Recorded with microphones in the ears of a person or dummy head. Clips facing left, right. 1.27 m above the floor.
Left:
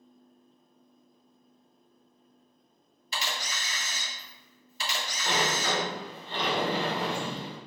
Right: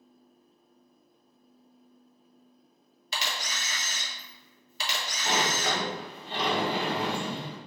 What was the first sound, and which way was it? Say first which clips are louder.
A camera shutter: even; 60° right (ahead or behind).